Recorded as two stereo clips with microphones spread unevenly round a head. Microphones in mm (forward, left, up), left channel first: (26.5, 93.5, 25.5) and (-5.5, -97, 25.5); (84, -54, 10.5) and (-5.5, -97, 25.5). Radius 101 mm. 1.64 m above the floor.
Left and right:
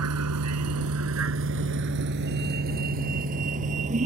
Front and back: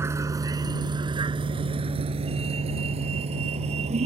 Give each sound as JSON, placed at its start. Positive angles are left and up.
{"t": 0.0, "sound": "a vehicle", "azimuth_deg": -95}